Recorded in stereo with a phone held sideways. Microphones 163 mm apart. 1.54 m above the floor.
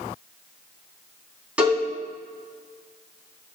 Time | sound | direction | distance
1.6 | a cowbell | 10° right (ahead or behind) | 3.5 m